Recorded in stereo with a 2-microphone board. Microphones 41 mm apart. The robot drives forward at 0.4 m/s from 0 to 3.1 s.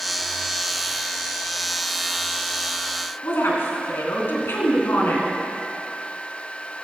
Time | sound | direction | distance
3.2 | a woman speaking | 75° left (ahead or behind) | 3 m